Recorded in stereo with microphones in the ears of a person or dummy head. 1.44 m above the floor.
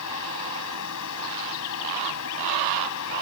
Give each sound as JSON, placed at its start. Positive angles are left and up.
{"t": 0.0, "sound": "a fan", "side_deg": 80}